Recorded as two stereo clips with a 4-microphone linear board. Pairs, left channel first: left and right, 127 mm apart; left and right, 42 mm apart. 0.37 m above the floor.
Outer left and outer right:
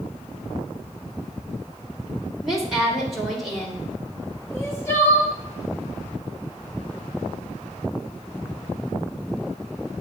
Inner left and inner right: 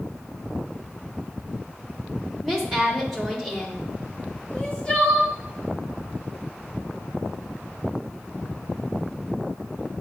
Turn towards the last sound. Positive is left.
turn(degrees=20)  # may be behind; listen again after turning